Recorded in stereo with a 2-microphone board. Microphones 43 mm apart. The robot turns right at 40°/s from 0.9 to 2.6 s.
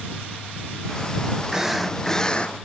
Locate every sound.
1.5 s a drill: 15° right; by 2.5 s 25° left